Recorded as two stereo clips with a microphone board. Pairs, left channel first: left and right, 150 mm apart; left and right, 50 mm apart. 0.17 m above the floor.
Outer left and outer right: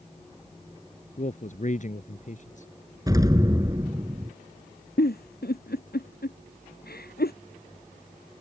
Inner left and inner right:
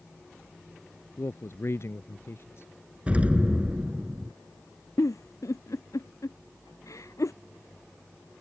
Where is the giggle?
80° left.